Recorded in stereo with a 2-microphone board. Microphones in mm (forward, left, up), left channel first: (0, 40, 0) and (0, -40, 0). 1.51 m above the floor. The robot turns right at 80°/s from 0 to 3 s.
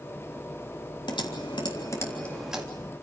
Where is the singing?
I don't hear singing.